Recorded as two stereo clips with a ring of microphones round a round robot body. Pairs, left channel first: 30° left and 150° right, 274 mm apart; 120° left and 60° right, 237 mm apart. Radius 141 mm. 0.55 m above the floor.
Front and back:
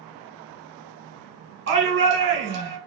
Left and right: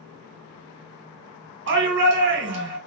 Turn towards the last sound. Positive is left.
turn(degrees=-105)